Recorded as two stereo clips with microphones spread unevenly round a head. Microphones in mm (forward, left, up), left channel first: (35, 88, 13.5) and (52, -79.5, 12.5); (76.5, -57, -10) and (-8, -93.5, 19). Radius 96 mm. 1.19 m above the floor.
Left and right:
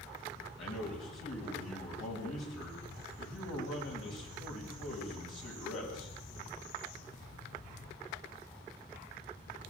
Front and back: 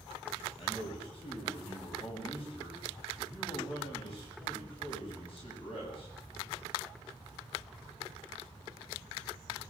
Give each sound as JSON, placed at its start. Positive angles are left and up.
{"t": 0.6, "sound": "a man speaking", "azimuth_deg": 105, "distance_m": 9.0}